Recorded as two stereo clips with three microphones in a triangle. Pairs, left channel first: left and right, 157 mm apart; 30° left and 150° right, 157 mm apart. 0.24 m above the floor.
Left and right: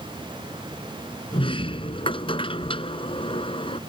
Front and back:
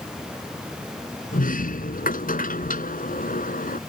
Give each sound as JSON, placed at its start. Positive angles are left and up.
{"t": 1.3, "sound": "a sliding door", "azimuth_deg": 40}